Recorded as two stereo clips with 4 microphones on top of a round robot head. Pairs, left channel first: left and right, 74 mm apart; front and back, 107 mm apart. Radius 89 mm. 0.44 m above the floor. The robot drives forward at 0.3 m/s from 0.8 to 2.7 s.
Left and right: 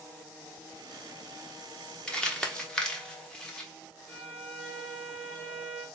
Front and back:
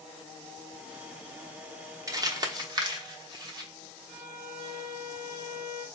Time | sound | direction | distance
2.1 | crumpling | 160° left | 1.1 m
4.1 | a violin | 165° left | 2 m